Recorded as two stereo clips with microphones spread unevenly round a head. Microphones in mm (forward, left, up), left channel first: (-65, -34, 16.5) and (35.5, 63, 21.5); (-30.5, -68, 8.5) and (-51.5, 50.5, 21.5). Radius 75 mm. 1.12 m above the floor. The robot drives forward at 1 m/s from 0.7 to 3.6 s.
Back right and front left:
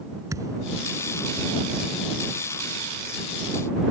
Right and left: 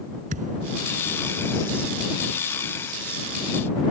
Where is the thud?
110° left.